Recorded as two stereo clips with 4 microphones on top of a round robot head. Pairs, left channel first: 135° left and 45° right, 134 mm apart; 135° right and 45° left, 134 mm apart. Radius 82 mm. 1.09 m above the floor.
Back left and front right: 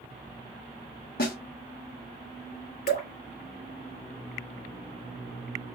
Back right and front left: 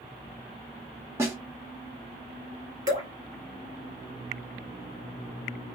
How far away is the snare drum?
About 1.1 m.